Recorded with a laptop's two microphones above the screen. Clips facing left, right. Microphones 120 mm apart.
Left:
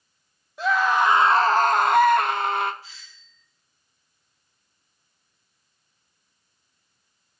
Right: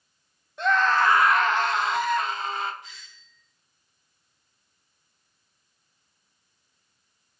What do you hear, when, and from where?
0.6 s a scream: 5° left (ahead or behind), 1.0 m; by 2.7 s 60° left (ahead or behind), 1.1 m
2.8 s a doorbell: 30° left (ahead or behind), 7 m